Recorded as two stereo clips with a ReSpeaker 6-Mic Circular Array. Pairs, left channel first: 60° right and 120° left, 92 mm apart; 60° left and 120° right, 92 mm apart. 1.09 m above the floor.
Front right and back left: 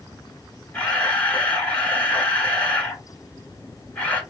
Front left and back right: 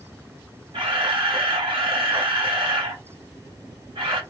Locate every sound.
0.7 s a camera shutter: 135° right, 1.4 m